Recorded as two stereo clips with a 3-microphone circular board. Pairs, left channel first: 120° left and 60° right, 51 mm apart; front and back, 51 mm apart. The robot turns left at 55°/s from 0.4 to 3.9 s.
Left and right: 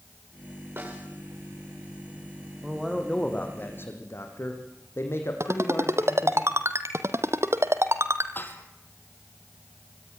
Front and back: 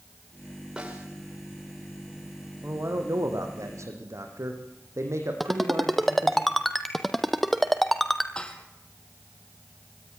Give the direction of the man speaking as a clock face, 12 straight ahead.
4 o'clock.